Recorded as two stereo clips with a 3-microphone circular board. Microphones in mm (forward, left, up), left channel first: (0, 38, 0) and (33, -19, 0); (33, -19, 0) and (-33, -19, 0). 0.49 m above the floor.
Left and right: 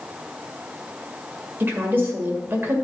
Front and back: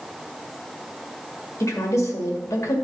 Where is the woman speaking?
10° right, 1.9 m.